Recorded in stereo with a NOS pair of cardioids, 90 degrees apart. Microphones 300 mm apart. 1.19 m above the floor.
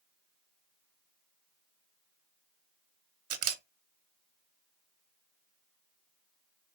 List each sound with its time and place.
3.3 s a camera shutter: 55° right, 1.9 m